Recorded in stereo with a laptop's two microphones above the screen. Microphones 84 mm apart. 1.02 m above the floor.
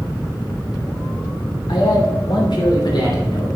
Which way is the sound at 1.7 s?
80° left.